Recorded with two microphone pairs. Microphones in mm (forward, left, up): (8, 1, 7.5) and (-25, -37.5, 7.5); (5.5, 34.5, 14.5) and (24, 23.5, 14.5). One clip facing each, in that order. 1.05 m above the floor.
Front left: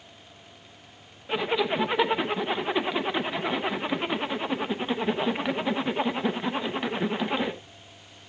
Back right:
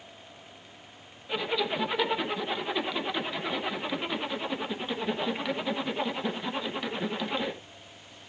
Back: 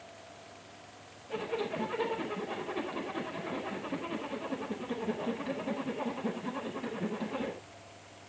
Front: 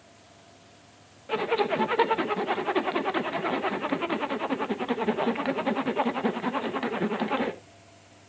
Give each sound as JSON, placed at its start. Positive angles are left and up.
{"t": 1.3, "sound": "a zipper", "azimuth_deg": -20, "distance_m": 0.9}